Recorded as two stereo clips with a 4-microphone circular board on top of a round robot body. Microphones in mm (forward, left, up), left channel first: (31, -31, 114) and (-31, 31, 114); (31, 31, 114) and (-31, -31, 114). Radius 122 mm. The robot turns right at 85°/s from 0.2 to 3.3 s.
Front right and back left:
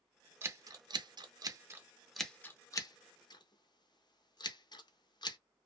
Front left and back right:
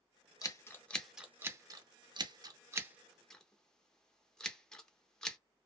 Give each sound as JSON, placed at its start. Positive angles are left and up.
{"t": 0.4, "sound": "scissors", "azimuth_deg": 80, "distance_m": 0.7}